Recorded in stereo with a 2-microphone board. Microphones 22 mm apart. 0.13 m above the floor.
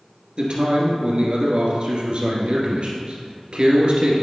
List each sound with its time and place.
0.4 s a man speaking: 50° right (ahead or behind), 2.5 m